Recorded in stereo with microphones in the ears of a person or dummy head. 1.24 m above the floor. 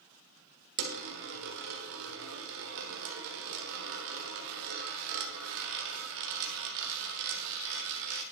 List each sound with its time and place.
0.8 s a dropped coin: 55° right (ahead or behind), 1.3 m